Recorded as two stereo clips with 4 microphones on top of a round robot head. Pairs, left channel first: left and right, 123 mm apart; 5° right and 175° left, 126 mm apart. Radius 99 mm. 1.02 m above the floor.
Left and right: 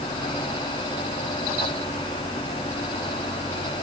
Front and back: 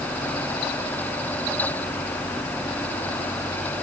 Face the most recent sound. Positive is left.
No sound to turn to.